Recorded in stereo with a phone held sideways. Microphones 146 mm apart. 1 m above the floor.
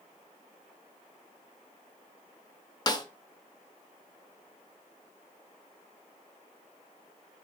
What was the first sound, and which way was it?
A snare drum, 30° left (ahead or behind).